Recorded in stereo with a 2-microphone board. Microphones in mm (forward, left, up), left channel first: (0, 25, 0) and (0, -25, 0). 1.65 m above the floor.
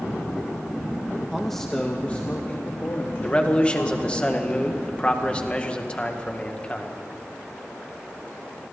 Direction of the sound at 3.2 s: 25° left (ahead or behind).